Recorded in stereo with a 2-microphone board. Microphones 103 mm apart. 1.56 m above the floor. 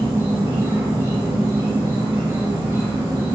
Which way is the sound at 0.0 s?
20° right (ahead or behind).